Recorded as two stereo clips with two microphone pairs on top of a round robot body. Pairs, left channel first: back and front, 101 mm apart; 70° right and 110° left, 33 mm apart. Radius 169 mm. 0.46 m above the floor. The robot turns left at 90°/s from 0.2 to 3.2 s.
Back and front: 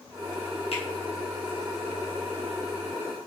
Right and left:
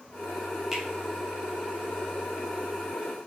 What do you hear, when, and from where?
0.7 s a finger snap: 165° right, 4 m; by 0.8 s 175° right, 4 m